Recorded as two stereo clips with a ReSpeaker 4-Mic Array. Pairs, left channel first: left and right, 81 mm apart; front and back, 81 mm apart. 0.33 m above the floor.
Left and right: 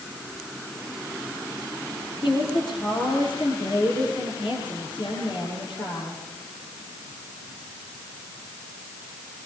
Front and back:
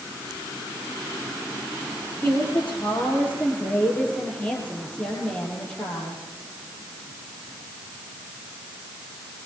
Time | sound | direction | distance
2.2 | a woman speaking | 70° left | 7 m